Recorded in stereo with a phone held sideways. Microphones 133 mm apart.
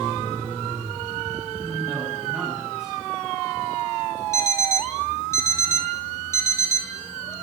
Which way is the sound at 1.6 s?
10° right (ahead or behind).